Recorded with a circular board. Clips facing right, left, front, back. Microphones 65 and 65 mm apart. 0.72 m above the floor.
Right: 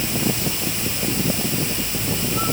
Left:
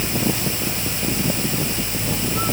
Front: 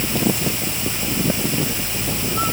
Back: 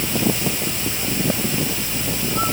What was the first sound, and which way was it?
Only background noise.